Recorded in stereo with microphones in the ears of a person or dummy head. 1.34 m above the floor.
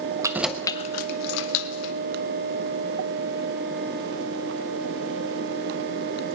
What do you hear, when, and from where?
0.2 s keys jangling: 25° right (ahead or behind), 0.7 m; by 1.9 s 80° left, 1.3 m